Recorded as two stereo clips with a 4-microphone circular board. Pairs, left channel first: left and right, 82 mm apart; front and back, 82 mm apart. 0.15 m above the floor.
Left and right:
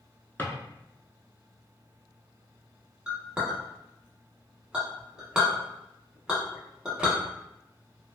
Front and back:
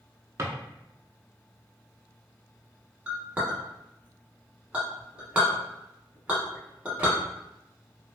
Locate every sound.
0.4 s a drawer: 140° left, 0.6 m
3.1 s a clink: 145° right, 0.9 m